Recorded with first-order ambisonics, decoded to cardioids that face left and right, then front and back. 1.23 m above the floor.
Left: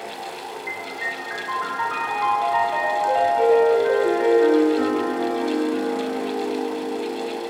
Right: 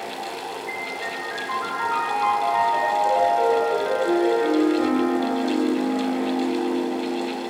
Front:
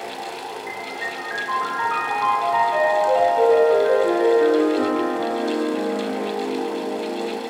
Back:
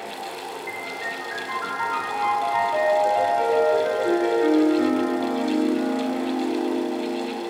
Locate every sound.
0.7 s a piano: 40° left, 1.2 m